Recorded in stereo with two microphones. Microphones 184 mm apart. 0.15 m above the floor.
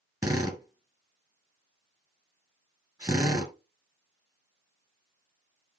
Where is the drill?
20° right (ahead or behind), 1.9 m.